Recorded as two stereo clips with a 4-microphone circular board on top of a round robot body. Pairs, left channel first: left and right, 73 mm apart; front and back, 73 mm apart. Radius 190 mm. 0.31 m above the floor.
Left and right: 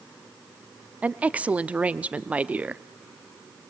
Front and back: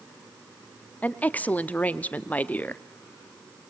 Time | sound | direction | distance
1.0 | a woman speaking | 40° right | 1.0 m